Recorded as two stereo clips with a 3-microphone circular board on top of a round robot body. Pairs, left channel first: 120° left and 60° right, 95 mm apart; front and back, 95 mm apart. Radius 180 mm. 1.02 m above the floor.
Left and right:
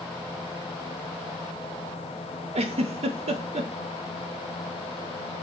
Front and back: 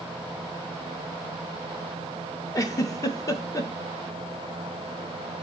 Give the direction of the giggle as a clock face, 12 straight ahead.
2 o'clock.